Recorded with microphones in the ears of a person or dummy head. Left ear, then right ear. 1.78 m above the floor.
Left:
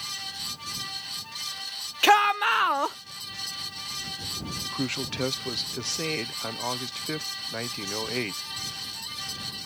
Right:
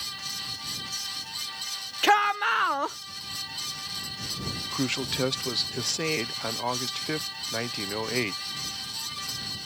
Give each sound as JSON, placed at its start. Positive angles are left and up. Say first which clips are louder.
{"t": 2.0, "sound": "a shout", "louder": "left 2 dB", "side_deg": 15}
{"t": 4.6, "sound": "a man speaking", "louder": "right 2 dB", "side_deg": -5}